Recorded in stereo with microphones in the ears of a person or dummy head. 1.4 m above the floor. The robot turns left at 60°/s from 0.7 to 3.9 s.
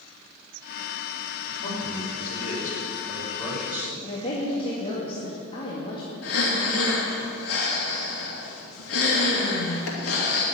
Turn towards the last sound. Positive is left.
turn(degrees=80)